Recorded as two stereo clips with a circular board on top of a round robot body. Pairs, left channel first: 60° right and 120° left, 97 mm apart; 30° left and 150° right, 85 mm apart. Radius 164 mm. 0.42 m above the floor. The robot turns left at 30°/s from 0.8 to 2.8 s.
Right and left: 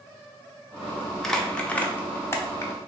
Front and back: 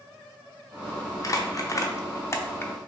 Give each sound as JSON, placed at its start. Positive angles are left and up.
{"t": 1.2, "sound": "crumpling", "azimuth_deg": 25, "distance_m": 0.7}